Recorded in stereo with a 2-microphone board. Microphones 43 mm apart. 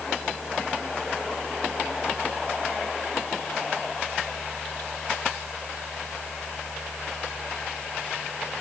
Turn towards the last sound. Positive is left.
No sound to turn to.